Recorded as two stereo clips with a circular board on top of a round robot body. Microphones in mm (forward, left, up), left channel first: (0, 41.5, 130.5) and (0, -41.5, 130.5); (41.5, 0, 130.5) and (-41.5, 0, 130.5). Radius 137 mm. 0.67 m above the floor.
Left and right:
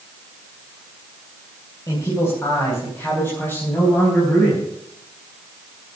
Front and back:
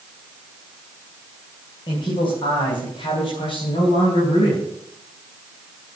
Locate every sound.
1.9 s a man speaking: 35° left, 4 m; by 4.6 s 20° left, 5 m